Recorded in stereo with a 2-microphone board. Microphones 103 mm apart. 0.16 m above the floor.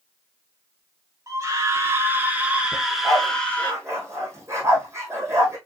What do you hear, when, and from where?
1.3 s a scream: 35° right (ahead or behind), 2 m; by 3.7 s 15° left (ahead or behind), 1.5 m
2.7 s a dog barking: 25° right (ahead or behind), 2 m